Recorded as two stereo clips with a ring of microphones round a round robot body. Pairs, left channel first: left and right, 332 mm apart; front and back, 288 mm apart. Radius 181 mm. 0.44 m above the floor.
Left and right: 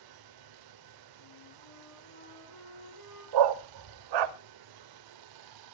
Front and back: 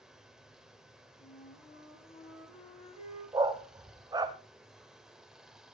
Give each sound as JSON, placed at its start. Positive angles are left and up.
{"t": 0.0, "sound": "running water", "azimuth_deg": -90, "distance_m": 1.1}
{"t": 1.2, "sound": "a flute", "azimuth_deg": 65, "distance_m": 9.5}
{"t": 3.3, "sound": "a dog barking", "azimuth_deg": -100, "distance_m": 0.9}